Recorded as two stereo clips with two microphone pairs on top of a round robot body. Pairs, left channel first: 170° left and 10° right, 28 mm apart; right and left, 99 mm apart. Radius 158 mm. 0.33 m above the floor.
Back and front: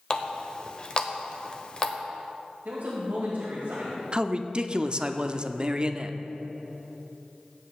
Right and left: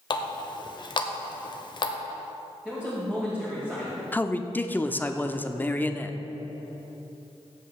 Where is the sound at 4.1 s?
15° right, 0.8 m.